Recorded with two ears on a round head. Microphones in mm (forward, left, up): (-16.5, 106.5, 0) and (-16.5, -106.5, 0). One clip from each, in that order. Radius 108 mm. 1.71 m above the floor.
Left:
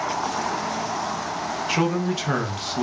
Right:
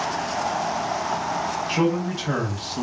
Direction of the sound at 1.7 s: 30° left (ahead or behind).